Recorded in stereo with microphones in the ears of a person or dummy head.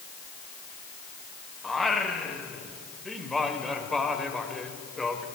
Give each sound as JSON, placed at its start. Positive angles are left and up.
{"t": 1.6, "sound": "singing", "side_deg": 0, "distance_m": 1.5}